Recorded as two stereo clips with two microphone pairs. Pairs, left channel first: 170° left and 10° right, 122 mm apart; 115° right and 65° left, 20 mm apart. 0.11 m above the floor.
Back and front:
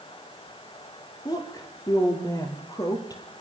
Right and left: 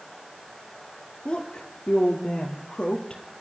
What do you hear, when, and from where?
1.2 s a woman speaking: 140° right, 3 m